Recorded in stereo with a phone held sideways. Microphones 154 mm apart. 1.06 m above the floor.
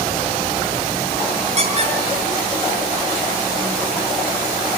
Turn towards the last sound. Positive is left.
turn(degrees=-45)  # may be behind; listen again after turning